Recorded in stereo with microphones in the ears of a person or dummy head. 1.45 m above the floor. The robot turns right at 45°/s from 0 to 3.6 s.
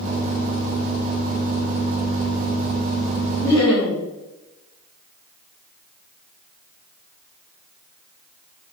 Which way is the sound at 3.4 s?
10° left (ahead or behind).